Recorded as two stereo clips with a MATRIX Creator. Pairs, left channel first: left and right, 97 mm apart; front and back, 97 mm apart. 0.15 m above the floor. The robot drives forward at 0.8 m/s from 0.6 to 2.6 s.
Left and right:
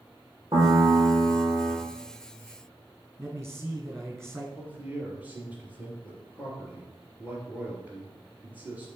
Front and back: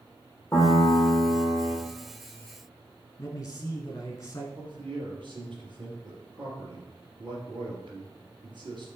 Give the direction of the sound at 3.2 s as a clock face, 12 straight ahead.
1 o'clock.